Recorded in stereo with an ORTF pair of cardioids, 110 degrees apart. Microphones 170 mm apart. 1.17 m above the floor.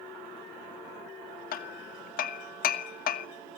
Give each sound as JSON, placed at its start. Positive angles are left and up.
{"t": 1.5, "sound": "hammering", "azimuth_deg": 60, "distance_m": 1.3}